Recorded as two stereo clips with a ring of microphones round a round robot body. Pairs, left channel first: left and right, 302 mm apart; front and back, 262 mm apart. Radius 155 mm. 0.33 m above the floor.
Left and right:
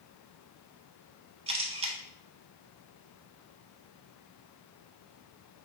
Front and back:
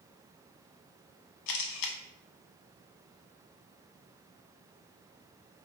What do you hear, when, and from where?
1.5 s a camera shutter: 20° right, 0.6 m